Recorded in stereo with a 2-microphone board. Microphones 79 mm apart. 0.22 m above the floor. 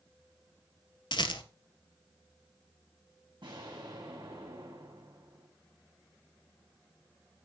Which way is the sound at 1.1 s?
80° left.